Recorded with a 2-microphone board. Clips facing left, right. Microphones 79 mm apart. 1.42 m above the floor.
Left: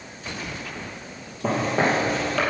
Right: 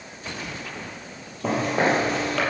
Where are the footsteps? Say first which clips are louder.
Even; centre (ahead or behind), 3 m.